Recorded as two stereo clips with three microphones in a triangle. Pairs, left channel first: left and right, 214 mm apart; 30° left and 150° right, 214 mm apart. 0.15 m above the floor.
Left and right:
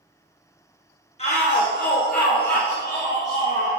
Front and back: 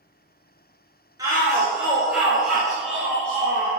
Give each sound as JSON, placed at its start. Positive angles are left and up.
{"t": 1.2, "sound": "a shout", "azimuth_deg": 140, "distance_m": 2.0}